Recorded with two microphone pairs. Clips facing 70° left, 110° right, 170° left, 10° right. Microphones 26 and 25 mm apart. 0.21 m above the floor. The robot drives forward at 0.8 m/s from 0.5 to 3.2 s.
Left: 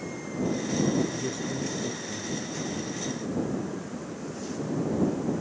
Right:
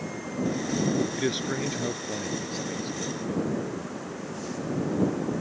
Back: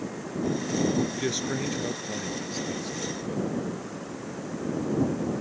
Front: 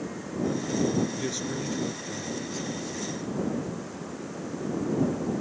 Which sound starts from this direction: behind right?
A man speaking, at 1.2 s.